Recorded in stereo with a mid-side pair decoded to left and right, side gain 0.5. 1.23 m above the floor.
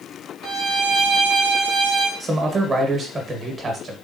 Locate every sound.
0.4 s a violin: 70° right, 0.9 m
2.2 s a man speaking: 35° right, 1.3 m